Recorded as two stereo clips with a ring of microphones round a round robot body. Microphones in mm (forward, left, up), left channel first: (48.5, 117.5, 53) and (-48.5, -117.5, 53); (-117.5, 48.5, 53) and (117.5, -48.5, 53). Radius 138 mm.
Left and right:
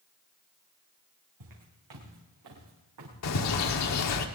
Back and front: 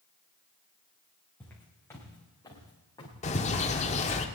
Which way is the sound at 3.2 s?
90° left.